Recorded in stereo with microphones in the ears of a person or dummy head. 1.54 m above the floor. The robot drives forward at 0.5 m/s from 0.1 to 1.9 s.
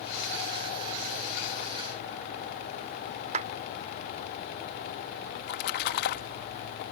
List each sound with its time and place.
3.3 s a clap: 45° right (ahead or behind)
5.4 s a splash: 60° left (ahead or behind)